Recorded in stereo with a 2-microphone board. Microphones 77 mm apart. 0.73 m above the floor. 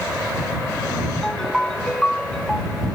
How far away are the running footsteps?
I don't hear running footsteps.